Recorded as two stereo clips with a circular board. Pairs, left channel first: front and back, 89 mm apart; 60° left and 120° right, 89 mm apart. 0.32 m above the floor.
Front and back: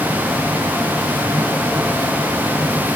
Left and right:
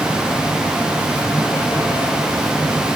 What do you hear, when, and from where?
Only background noise.